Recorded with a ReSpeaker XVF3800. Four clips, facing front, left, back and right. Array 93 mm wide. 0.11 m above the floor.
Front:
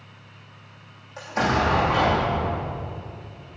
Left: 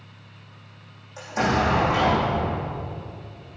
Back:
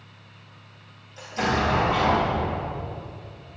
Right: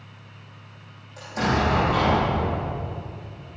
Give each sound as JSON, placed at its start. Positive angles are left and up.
{"t": 1.2, "sound": "an explosion", "azimuth_deg": 20, "distance_m": 5.5}